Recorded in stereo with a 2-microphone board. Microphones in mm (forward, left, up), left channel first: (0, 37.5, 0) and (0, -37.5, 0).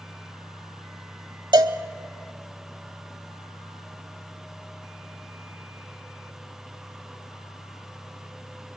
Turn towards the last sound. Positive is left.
turn(degrees=-75)  # may be behind; listen again after turning